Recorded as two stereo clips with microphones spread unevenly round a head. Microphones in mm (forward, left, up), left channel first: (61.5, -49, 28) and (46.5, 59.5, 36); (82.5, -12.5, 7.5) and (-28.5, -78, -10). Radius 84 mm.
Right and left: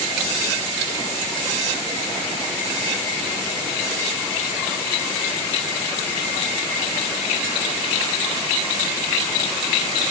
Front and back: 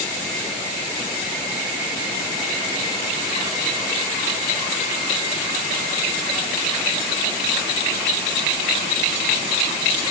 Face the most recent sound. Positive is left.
No sound to turn to.